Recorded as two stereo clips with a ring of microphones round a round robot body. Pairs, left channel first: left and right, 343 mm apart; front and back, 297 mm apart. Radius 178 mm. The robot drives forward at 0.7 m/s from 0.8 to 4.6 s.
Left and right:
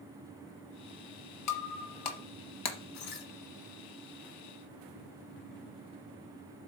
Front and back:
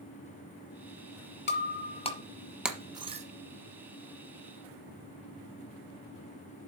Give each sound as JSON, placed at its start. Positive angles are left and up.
{"t": 1.5, "sound": "breaking glass", "azimuth_deg": 50, "distance_m": 1.4}